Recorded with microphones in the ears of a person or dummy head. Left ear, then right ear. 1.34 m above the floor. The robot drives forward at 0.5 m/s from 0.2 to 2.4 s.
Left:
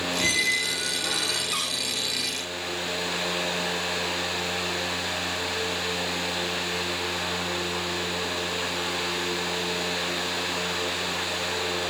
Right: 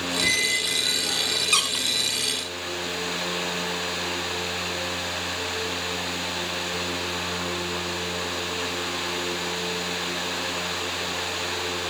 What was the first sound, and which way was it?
A squeak, 50° left (ahead or behind).